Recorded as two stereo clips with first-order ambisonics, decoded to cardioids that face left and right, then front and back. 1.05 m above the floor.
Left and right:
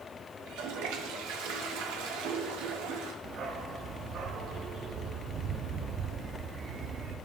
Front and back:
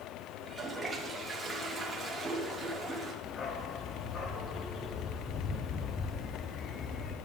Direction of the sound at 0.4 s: 100° right.